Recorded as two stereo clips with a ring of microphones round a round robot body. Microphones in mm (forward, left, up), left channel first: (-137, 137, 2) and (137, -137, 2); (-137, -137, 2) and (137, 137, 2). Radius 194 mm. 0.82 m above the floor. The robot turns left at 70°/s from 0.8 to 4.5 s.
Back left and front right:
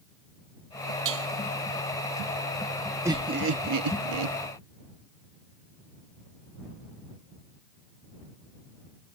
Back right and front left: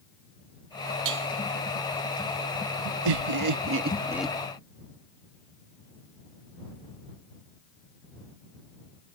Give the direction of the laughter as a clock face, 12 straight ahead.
11 o'clock.